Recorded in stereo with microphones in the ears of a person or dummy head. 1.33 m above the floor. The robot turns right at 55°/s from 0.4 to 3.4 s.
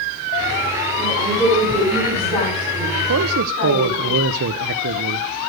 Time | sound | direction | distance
1.0 | a woman speaking | 55° right | 9 m
3.1 | a man speaking | 90° right | 0.8 m